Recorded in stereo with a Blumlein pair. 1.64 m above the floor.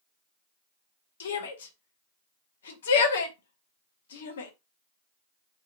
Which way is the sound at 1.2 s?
60° left.